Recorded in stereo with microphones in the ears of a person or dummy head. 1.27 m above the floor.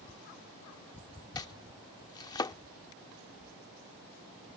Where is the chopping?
25° left (ahead or behind).